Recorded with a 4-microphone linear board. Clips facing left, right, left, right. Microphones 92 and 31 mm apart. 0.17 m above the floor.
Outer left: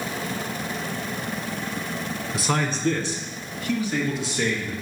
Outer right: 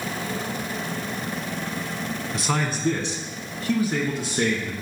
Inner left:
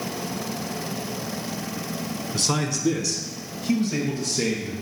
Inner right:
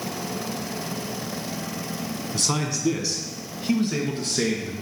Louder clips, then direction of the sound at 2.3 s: Outer left 1 dB, inner left 1 dB; 5° left (ahead or behind).